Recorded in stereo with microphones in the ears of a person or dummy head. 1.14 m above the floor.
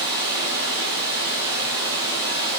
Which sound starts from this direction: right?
Running water, at 0.0 s.